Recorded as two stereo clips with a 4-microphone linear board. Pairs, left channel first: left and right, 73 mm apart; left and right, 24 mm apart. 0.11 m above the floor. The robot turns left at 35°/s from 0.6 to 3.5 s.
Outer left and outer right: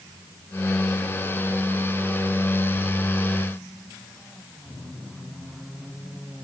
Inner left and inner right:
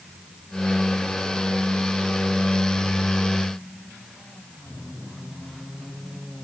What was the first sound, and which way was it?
Only background noise.